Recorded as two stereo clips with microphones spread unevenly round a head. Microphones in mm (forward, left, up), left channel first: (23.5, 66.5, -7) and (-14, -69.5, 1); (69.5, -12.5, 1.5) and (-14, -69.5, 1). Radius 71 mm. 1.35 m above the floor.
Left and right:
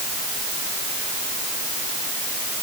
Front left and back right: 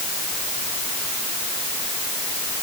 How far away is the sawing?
No sawing in this recording.